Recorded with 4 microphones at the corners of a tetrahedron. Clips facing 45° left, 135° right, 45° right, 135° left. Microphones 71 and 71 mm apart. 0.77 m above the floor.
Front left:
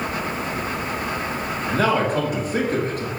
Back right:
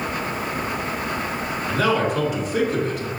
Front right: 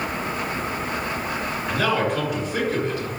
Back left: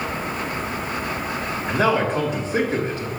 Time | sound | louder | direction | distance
1.7 | a man speaking | front left 1 dB, back left 3 dB | 80° left | 2 m